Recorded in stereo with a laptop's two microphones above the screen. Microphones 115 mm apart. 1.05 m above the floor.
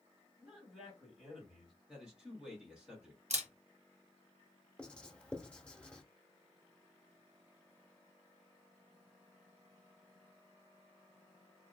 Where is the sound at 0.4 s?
10° right (ahead or behind), 2.0 m.